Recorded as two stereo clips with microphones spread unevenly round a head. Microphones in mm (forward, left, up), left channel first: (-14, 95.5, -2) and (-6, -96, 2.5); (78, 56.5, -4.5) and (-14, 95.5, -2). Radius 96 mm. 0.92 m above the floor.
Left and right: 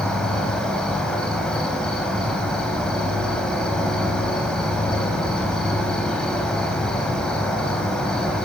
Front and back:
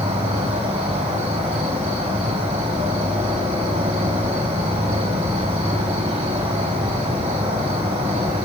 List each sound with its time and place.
0.0 s an insect: straight behind, 1.7 m